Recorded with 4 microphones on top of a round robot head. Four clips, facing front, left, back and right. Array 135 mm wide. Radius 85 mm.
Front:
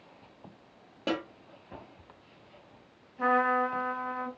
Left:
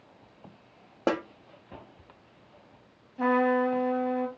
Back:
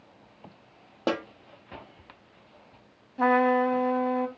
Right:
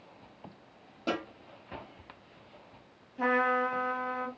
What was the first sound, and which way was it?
A snare drum, 120° left.